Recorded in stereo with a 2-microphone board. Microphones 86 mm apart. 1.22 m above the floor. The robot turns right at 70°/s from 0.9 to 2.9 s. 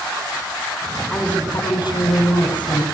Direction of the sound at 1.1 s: 5° left.